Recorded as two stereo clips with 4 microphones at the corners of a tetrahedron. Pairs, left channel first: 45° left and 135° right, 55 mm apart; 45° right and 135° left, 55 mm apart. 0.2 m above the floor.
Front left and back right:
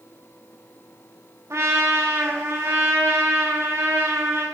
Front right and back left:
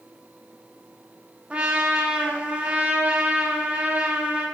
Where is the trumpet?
160° right, 6 m.